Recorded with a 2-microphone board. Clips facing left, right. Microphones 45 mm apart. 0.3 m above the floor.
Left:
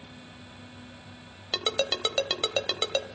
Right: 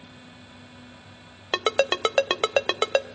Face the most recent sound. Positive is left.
turn(degrees=-35)  # may be behind; listen again after turning